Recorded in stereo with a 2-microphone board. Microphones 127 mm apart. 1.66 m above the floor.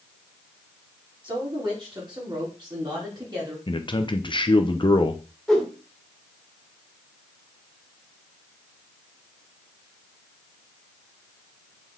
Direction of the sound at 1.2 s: 40° right (ahead or behind).